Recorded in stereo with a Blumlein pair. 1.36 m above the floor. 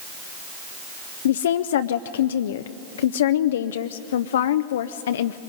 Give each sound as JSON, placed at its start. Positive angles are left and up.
{"t": 1.2, "sound": "a woman speaking", "azimuth_deg": 60, "distance_m": 0.5}